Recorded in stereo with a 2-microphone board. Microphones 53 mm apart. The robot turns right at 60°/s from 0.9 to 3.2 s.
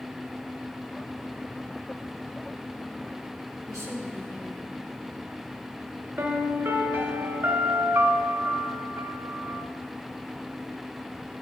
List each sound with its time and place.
3.7 s a woman speaking: 75° left (ahead or behind), 3.5 m
6.2 s a piano: 45° right (ahead or behind), 1.0 m